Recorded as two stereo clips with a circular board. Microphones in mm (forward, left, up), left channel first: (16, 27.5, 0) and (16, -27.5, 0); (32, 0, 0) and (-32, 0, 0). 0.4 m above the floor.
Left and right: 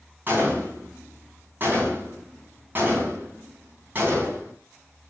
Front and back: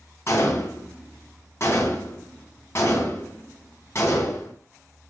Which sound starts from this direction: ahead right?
A gunshot, at 0.3 s.